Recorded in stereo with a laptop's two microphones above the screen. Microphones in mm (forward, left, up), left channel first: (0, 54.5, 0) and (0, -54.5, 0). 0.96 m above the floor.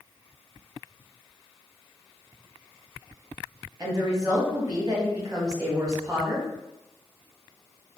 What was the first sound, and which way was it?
A woman speaking, 30° right (ahead or behind).